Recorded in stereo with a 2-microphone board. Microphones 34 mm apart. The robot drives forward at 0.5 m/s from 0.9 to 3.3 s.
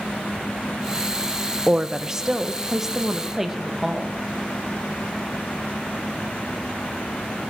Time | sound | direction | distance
1.7 | a woman speaking | 20° right (ahead or behind) | 0.6 m